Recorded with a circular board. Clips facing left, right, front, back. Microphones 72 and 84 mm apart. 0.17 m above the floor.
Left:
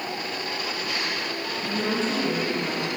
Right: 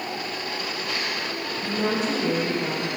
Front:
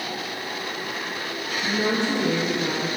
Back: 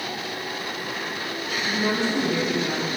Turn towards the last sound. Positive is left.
turn(degrees=-10)